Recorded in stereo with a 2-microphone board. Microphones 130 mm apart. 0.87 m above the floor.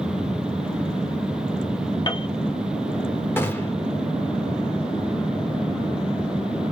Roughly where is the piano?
Left.